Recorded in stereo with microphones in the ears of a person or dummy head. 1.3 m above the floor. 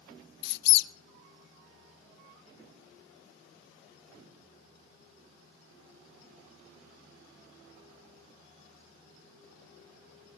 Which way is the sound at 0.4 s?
60° left (ahead or behind).